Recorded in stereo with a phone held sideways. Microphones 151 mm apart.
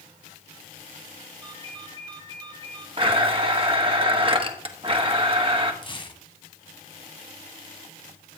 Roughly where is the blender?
Right.